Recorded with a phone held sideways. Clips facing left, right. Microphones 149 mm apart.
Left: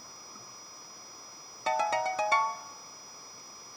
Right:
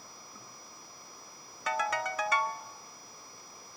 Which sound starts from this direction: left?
A ringtone, at 1.7 s.